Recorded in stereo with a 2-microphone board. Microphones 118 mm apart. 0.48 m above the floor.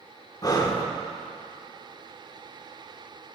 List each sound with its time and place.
0.4 s breathing: 35° left (ahead or behind), 0.7 m